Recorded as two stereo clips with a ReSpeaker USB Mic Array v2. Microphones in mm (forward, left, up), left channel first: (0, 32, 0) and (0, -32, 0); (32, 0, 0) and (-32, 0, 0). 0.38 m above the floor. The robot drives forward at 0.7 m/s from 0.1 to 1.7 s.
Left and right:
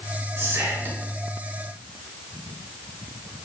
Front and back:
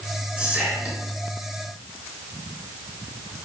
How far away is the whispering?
About 1.7 m.